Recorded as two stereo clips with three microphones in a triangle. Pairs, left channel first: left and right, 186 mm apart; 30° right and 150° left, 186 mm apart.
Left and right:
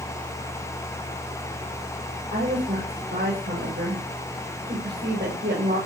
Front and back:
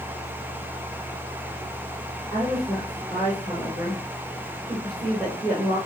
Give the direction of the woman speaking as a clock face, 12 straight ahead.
4 o'clock.